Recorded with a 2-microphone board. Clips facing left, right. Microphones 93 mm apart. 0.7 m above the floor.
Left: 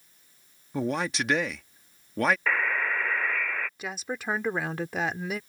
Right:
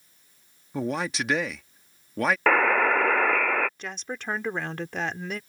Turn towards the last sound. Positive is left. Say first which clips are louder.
# left 1 dB
turn(degrees=5)  # may be behind; listen again after turning